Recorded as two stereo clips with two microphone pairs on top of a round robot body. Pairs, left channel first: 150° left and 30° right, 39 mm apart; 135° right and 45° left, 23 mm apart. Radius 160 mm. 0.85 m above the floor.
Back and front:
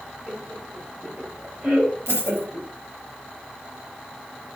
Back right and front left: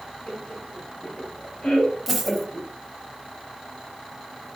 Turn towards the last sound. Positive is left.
turn(degrees=-35)